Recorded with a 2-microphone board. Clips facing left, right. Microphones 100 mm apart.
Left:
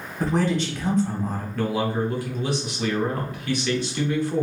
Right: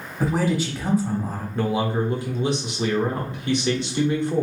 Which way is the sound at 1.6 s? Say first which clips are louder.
Right 2 dB; 25° right (ahead or behind).